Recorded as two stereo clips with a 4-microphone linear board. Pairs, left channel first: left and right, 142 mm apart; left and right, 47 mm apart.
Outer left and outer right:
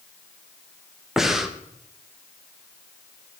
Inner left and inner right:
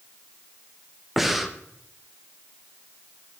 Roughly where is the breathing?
Centre.